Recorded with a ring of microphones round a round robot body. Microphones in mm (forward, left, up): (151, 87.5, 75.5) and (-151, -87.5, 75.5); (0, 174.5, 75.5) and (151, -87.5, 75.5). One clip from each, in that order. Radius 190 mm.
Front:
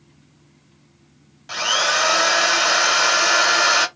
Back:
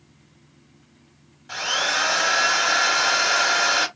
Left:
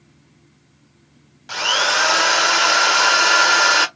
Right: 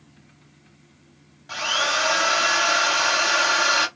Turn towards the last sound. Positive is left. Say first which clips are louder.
# front 4 dB, left 5 dB
turn(degrees=90)